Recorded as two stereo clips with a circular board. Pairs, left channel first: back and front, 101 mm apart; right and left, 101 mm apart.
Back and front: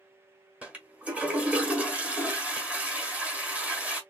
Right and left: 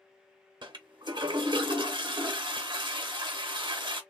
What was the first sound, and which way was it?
A toilet flushing, 75° left.